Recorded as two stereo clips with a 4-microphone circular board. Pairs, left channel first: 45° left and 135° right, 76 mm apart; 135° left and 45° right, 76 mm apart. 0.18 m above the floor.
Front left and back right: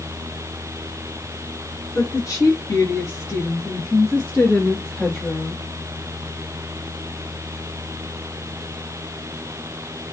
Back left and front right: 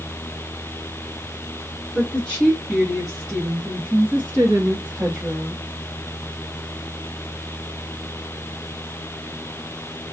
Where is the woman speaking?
60° left, 1.8 m; by 5.6 s 50° right, 1.7 m.